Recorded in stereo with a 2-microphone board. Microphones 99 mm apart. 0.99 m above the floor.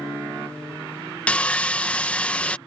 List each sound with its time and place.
1.3 s sawing: 15° left (ahead or behind)